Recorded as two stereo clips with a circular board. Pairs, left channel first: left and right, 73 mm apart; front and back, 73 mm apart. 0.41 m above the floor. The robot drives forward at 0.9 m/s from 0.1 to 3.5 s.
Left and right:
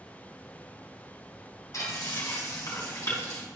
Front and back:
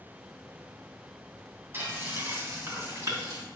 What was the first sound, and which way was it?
Frying, 125° left.